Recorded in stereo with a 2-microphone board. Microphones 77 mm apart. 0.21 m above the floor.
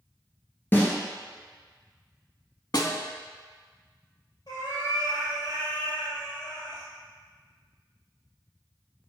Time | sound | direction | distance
0.7 | a snare drum | 25° left (ahead or behind) | 1.2 m
2.7 | a snare drum | 60° left (ahead or behind) | 0.5 m
4.5 | a cat meowing | 60° left (ahead or behind) | 1.9 m